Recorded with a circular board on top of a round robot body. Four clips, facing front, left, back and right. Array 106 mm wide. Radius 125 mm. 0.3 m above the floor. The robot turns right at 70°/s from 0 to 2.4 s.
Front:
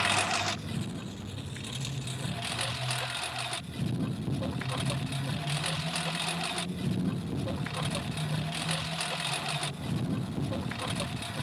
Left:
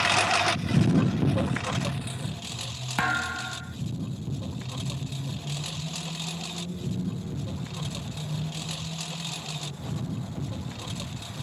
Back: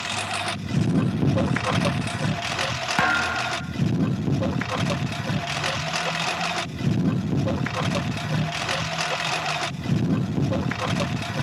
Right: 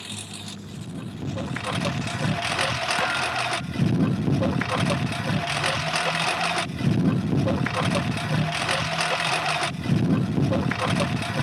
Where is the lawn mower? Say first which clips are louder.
Left 16 dB, back 1 dB; 75° left; by 11.4 s 120° right.